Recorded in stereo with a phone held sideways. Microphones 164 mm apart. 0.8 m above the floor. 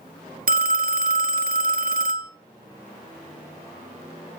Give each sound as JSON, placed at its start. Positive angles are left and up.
{"t": 0.5, "sound": "a phone ringing", "side_deg": -65, "distance_m": 0.5}